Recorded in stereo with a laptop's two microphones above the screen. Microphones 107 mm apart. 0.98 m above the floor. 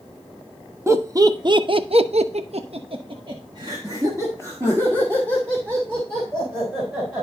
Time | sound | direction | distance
0.9 | laughter | 25° right (ahead or behind) | 1.1 m